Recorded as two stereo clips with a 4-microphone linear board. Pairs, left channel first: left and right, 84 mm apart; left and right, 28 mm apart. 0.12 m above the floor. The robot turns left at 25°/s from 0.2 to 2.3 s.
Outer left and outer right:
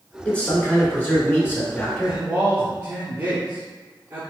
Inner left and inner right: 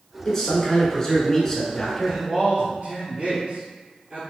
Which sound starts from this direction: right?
A man speaking, at 2.0 s.